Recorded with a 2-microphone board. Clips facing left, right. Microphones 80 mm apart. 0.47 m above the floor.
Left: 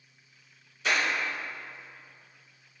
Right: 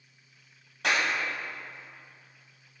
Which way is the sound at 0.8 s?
75° right (ahead or behind).